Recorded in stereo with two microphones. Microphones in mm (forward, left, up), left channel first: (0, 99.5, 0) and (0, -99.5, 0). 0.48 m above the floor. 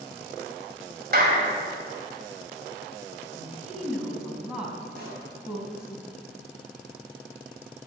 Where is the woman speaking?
5° right (ahead or behind), 3.5 m.